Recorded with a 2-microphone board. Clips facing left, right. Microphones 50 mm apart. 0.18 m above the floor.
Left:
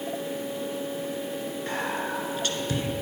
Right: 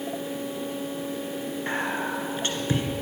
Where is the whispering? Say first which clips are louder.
Right 2 dB; 30° right (ahead or behind), 1.9 m.